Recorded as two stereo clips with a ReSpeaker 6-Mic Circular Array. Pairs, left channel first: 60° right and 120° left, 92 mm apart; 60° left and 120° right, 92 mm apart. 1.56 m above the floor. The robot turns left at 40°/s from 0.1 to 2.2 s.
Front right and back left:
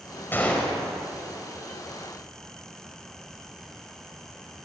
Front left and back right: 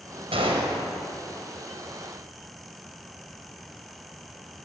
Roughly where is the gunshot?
Behind right.